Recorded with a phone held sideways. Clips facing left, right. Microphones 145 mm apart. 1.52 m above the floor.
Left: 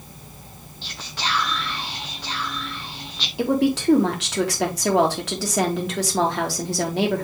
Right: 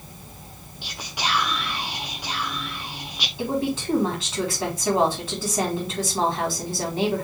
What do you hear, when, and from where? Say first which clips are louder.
0.8 s whispering: right 1 dB; 15° right (ahead or behind), 0.5 m
3.4 s a woman speaking: left 5 dB; 80° left, 2 m